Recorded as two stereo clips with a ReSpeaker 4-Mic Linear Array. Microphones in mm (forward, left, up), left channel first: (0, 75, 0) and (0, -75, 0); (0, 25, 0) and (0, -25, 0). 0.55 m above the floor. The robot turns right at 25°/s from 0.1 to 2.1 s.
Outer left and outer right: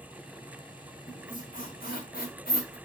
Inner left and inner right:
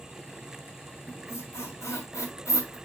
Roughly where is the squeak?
Left.